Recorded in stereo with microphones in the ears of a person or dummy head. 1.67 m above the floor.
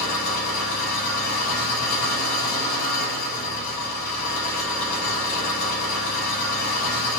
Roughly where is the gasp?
I don't hear a gasp.